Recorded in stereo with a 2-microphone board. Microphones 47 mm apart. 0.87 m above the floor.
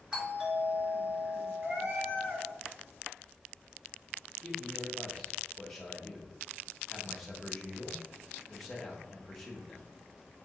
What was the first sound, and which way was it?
A doorbell, 15° right (ahead or behind).